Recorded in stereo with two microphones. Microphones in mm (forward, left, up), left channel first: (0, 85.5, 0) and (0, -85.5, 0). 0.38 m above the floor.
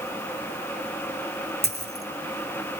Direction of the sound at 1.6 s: 70° right (ahead or behind).